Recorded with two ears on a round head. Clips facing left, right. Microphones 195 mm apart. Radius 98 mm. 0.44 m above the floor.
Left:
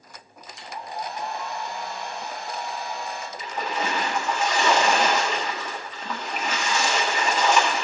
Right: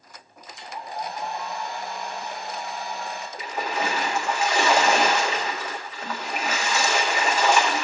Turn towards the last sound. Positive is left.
turn(degrees=-10)  # may be behind; listen again after turning